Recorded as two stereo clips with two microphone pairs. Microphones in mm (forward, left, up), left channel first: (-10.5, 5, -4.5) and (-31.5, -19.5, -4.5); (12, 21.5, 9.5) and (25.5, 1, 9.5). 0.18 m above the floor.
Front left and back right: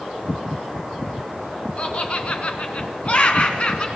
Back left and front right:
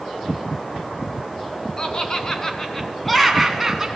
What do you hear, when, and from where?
1.8 s laughter: 85° left, 2.5 m; by 3.9 s 20° left, 2 m